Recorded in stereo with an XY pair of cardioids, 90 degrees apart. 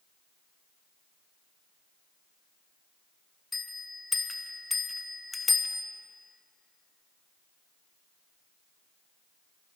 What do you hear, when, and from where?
3.5 s a bell: 20° left, 1.1 m